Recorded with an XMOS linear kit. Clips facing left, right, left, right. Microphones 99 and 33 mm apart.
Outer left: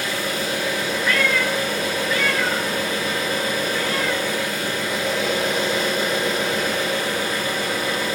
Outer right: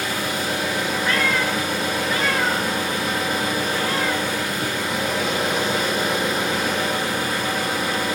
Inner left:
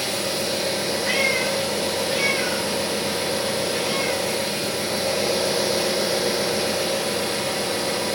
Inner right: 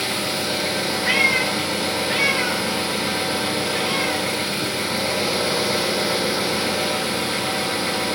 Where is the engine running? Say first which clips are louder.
Even, inner right 1 dB; 75° right (ahead or behind), 3.5 m.